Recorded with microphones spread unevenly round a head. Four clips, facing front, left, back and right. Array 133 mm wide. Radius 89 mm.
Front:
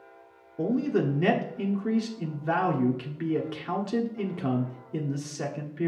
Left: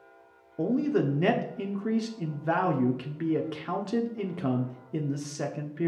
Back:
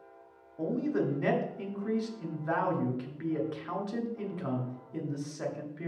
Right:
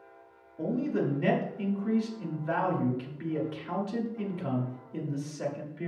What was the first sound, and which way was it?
A man speaking, 60° left.